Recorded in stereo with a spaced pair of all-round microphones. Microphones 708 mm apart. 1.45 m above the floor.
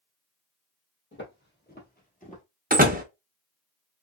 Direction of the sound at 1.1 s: 15° left (ahead or behind).